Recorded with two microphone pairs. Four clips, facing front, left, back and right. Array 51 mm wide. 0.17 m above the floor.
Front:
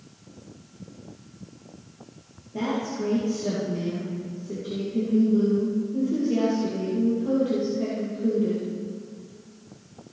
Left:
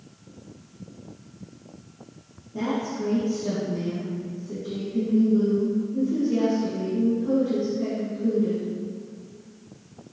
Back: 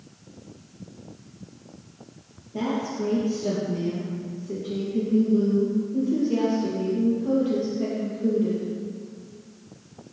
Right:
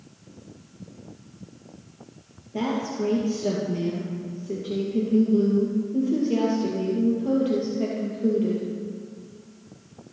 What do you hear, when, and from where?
2.5 s a woman speaking: 85° right, 3.5 m